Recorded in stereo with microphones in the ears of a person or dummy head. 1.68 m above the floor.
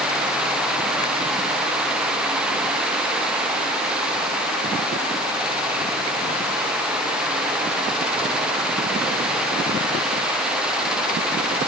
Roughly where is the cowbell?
No cowbell in this recording.